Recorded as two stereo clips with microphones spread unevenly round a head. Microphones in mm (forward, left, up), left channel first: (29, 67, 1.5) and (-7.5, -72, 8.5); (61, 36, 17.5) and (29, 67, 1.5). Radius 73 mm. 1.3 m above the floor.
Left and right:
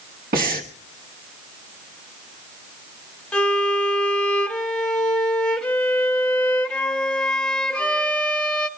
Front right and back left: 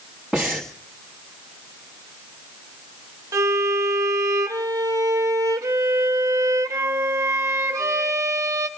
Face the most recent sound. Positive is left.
turn(degrees=160)